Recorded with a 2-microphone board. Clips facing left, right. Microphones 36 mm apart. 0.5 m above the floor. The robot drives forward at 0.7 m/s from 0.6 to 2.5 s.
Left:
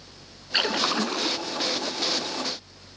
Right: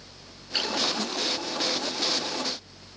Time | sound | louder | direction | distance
0.5 | a splash | left 4 dB | 45° left (ahead or behind) | ?